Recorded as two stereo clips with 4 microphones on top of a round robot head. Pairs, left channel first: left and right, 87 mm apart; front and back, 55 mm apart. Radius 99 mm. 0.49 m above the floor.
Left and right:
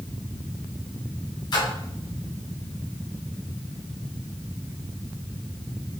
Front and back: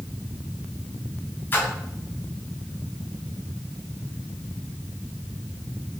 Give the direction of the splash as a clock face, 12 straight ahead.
10 o'clock.